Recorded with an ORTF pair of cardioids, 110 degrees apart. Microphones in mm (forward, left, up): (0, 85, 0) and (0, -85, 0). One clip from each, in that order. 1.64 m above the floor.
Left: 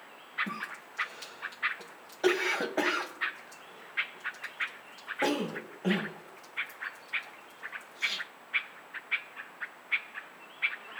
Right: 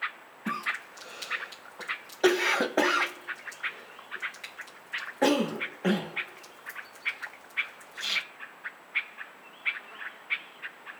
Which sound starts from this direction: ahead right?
A cough, at 0.5 s.